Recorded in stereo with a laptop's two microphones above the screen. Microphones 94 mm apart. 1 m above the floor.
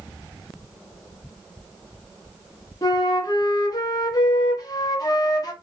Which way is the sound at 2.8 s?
40° left (ahead or behind).